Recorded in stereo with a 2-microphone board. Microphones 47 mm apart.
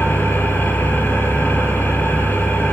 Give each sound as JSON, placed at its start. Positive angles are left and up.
{"t": 0.0, "sound": "an engine running", "side_deg": 45, "distance_m": 7.5}